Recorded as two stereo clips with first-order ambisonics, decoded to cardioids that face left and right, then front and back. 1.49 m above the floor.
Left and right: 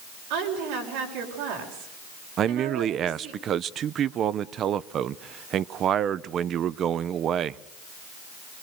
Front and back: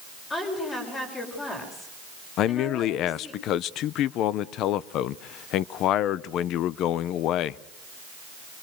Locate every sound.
0.3 s a woman speaking: 70° right, 6.5 m
2.4 s a man speaking: 35° right, 0.5 m